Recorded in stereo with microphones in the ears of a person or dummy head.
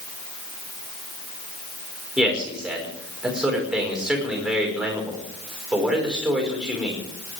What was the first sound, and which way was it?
A man speaking, 5° left (ahead or behind).